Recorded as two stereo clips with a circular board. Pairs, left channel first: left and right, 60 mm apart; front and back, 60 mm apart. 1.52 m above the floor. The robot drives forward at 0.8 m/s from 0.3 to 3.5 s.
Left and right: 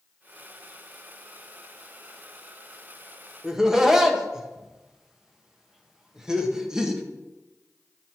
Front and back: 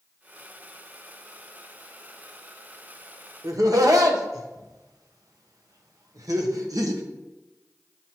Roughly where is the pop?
No pop in this recording.